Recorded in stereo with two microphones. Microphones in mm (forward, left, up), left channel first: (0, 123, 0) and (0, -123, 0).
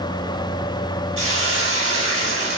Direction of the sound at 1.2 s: 60° right (ahead or behind).